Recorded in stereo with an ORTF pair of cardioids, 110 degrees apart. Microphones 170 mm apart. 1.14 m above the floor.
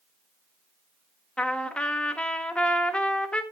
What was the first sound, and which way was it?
A trumpet, 5° left.